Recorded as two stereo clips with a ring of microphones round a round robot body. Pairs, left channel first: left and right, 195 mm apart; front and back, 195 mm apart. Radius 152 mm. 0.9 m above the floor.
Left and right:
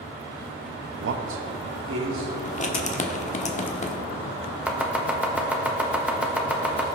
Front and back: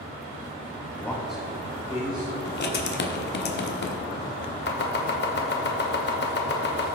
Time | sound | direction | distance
1.0 | a man speaking | 80° right | 0.9 m
2.5 | writing | 35° left | 1.3 m
4.7 | chopping | 5° right | 1.5 m